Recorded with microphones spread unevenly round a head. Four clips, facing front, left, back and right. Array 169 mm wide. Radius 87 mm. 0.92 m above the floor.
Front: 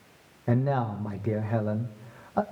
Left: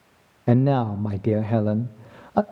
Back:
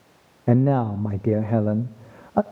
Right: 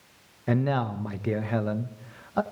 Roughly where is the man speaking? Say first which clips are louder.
Left 6 dB, back 7 dB; behind left.